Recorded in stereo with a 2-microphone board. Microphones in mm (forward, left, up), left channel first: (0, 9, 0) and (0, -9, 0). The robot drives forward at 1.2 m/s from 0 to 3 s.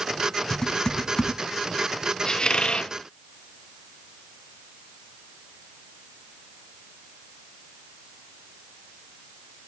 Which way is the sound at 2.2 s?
40° left (ahead or behind).